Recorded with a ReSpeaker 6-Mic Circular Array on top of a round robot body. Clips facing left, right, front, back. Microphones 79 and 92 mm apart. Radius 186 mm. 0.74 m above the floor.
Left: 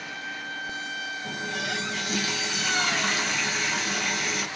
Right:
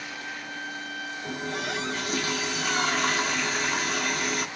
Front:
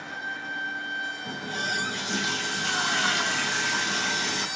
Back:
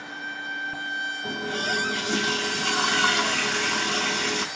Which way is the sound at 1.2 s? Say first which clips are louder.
Right 1 dB, back 5 dB; 140° right.